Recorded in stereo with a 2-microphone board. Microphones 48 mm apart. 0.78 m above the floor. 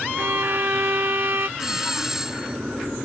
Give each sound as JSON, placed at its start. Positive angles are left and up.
{"t": 0.2, "sound": "a violin", "side_deg": -55}
{"t": 1.6, "sound": "a doorbell", "side_deg": -10}